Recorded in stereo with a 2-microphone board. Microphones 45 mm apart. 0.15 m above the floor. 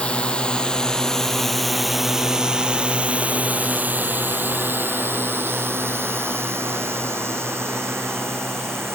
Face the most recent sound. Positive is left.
turn(degrees=-80)